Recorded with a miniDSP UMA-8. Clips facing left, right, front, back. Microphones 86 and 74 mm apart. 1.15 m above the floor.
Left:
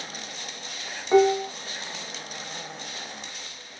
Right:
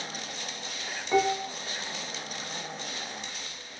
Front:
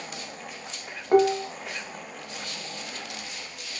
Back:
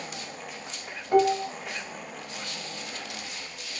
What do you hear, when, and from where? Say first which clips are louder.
1.1 s dishes clattering: left 7 dB, front 2 dB; 25° left, 0.8 m